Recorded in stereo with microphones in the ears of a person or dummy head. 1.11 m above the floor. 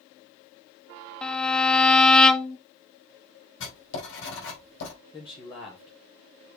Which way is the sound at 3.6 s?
70° left (ahead or behind).